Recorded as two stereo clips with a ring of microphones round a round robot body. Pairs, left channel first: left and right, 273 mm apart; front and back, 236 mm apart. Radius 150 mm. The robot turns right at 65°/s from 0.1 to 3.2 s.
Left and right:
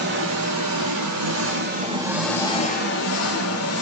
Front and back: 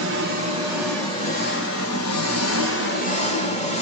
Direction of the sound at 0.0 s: 140° right.